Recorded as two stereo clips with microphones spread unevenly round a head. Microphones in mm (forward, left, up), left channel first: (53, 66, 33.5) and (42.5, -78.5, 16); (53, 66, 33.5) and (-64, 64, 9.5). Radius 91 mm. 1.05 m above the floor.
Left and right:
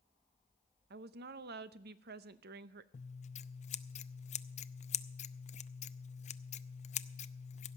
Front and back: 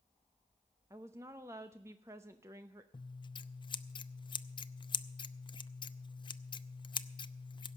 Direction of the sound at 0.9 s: 105° right.